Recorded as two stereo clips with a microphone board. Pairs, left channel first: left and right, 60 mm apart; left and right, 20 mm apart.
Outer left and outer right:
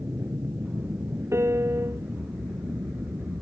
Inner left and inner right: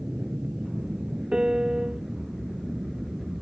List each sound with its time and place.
0.0 s an aircraft: 35° right (ahead or behind)
1.3 s a piano: 45° right (ahead or behind)